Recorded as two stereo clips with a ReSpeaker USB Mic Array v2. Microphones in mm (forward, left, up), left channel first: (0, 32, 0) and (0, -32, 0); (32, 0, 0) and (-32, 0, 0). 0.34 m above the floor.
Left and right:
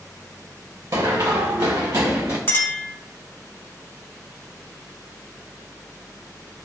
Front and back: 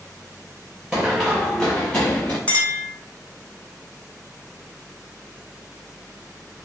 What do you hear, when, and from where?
0.9 s running footsteps: 105° right, 1.1 m; by 2.4 s 60° right, 1.2 m
2.5 s a clink: 55° left, 0.9 m